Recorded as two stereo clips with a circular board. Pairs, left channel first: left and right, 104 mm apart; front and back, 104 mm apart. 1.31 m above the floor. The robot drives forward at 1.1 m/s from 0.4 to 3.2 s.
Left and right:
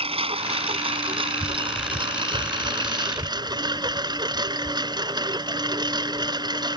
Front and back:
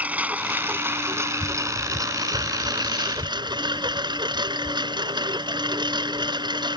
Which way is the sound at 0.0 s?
105° right.